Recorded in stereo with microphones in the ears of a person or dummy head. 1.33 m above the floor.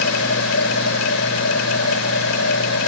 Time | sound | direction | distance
0.0 | a machine running | 80° left | ?